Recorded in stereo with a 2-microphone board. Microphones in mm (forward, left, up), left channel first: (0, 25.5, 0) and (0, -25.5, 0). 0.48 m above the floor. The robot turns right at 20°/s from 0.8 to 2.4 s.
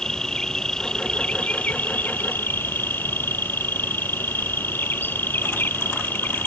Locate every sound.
0.0 s an insect: 15° left; by 6.5 s 45° left